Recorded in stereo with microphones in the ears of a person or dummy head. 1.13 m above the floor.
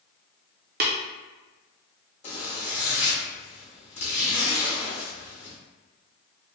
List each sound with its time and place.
0.8 s tapping: 45° right (ahead or behind), 0.5 m
2.2 s a zipper: 30° left (ahead or behind), 0.8 m